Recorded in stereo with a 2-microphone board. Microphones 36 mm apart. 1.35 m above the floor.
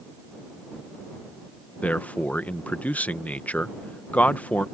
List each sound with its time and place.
1.8 s a man speaking: 45° left (ahead or behind)